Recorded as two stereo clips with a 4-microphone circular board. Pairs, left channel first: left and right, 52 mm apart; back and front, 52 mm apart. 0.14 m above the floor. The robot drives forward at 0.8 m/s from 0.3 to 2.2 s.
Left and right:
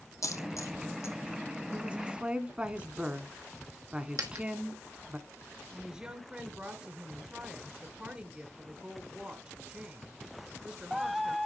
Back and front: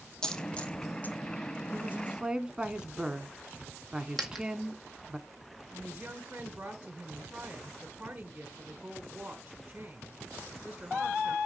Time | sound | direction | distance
0.2 | a dropped coin | 100° left | 1.5 m
1.7 | a woman speaking | 30° right | 1.3 m
4.2 | a dropped coin | 100° right | 1.6 m
5.7 | a woman speaking | 50° right | 1.3 m